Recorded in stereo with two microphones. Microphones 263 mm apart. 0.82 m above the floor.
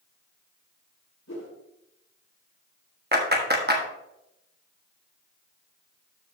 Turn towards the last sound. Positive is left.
turn(degrees=-40)  # may be behind; listen again after turning